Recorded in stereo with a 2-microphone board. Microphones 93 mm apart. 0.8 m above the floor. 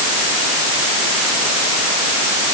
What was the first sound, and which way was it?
Only background noise.